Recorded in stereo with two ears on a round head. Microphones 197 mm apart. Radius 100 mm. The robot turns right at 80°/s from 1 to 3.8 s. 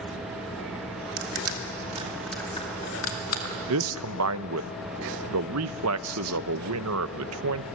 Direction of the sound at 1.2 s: 90° right.